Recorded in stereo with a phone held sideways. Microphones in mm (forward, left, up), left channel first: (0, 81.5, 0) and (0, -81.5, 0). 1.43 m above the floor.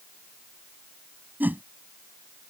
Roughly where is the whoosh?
Centre.